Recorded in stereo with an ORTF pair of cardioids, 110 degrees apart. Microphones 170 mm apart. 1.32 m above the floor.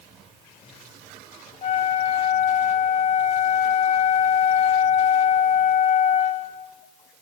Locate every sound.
1.6 s a flute: 45° left, 3 m